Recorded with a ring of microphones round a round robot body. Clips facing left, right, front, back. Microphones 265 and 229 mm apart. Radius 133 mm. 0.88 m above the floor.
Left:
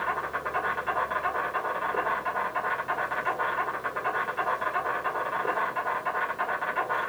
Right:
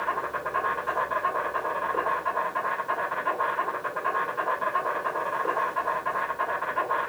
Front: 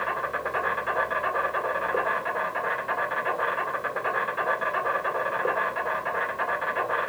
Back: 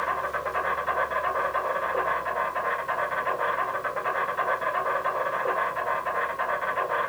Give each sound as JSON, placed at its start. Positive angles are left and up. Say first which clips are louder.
{"t": 0.0, "sound": "an insect", "louder": "right 2 dB, even", "azimuth_deg": 40, "distance_m": 2.0}